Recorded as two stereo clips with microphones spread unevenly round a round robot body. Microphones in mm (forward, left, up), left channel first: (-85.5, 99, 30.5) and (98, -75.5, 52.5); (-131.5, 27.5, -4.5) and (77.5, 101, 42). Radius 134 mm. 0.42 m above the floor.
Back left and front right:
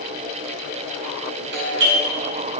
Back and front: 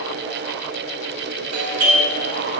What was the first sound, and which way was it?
A doorbell, 5° right.